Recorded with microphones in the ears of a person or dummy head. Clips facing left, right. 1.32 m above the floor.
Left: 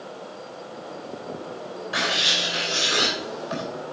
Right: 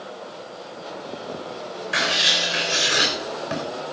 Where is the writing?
30° right (ahead or behind), 3.5 m.